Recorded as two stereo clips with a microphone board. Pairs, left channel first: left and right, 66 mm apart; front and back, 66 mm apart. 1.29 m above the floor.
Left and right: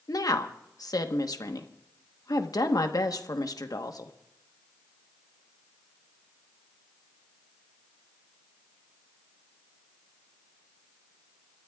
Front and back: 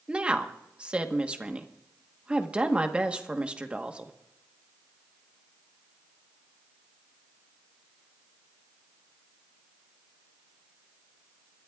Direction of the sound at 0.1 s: 110° left.